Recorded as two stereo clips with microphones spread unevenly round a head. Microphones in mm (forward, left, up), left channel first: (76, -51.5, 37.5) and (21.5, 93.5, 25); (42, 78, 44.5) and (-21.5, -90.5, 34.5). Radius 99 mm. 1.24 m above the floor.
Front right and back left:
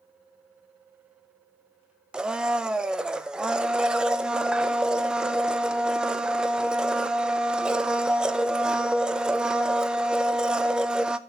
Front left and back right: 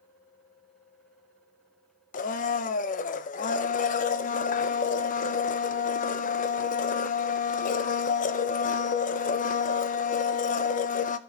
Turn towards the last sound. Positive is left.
turn(degrees=25)